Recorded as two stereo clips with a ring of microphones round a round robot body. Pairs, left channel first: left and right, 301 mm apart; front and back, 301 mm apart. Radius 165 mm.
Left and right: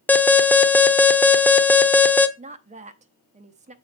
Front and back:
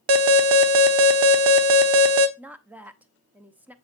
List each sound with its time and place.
0.1 s an alarm: 175° left, 0.9 m
2.4 s a woman speaking: 105° right, 0.7 m